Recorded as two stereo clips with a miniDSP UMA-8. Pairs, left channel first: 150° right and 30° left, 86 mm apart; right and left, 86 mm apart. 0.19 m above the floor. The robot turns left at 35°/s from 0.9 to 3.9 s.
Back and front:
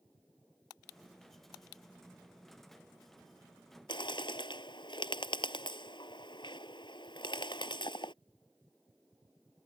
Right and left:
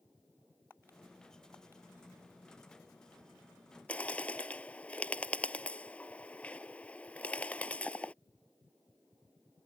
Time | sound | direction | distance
3.9 | a bird | 165° right | ?